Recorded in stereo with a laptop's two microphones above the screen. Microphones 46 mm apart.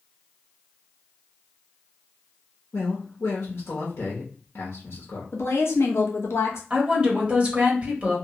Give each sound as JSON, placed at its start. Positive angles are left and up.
{"t": 2.7, "sound": "a man speaking", "side_deg": 60, "distance_m": 0.8}
{"t": 5.3, "sound": "a woman speaking", "side_deg": 70, "distance_m": 0.9}
{"t": 6.7, "sound": "a woman speaking", "side_deg": -30, "distance_m": 1.6}